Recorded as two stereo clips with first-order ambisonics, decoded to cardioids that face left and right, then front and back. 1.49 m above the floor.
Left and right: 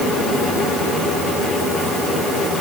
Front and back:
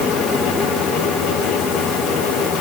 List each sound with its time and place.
Only background noise.